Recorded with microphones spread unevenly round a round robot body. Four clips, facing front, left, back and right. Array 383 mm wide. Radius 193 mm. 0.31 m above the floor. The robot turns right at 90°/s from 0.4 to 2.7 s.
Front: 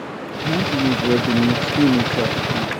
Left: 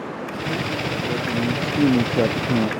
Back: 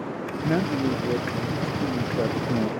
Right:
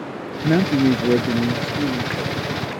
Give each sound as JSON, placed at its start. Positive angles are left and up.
{"t": 0.4, "sound": "a man speaking", "azimuth_deg": -105}